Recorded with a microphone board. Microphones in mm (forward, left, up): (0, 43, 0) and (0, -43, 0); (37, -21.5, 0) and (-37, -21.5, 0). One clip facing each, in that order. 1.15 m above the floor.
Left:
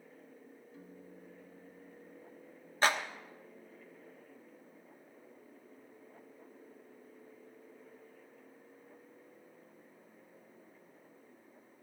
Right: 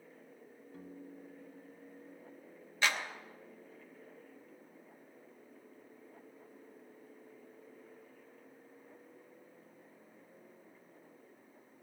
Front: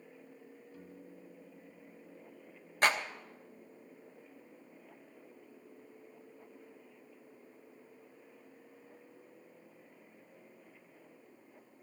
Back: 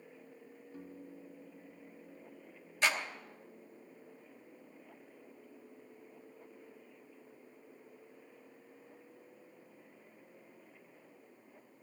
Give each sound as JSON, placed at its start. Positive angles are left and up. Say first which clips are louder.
{"t": 0.7, "sound": "a piano", "louder": "right 5 dB, back 5 dB", "azimuth_deg": -120, "distance_m": 1.2}
{"t": 2.8, "sound": "a clap", "louder": "left 4 dB, front 3 dB", "azimuth_deg": 40, "distance_m": 1.0}